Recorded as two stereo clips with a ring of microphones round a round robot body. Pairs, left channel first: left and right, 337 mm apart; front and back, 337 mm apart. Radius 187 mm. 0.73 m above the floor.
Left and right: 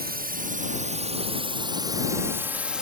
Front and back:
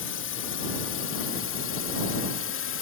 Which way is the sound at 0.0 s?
40° right.